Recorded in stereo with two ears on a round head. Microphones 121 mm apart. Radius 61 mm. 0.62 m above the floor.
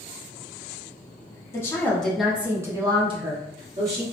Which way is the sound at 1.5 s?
20° left (ahead or behind).